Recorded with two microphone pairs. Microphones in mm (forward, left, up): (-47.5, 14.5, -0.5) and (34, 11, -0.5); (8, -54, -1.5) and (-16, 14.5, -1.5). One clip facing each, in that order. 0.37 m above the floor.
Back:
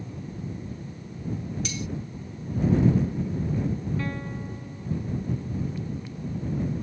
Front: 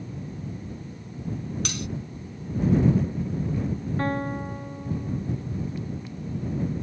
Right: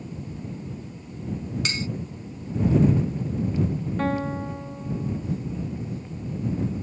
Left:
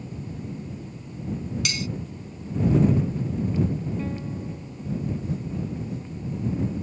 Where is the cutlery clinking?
15° right.